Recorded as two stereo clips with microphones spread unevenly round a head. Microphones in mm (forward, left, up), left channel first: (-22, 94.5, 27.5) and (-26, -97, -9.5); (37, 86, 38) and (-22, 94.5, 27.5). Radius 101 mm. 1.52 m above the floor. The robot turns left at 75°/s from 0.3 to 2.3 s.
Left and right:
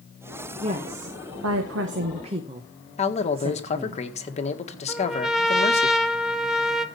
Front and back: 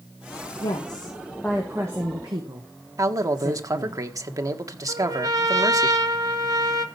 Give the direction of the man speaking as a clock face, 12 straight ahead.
7 o'clock.